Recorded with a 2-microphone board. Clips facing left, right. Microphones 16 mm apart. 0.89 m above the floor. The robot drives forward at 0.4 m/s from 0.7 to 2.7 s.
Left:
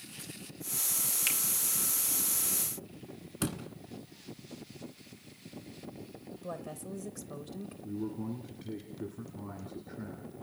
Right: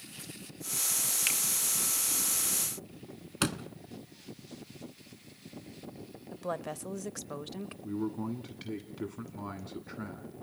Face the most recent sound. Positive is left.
turn(degrees=-65)  # may be behind; listen again after turning